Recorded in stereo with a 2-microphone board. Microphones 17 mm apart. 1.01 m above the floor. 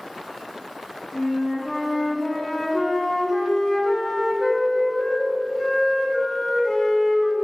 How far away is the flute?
About 1.8 m.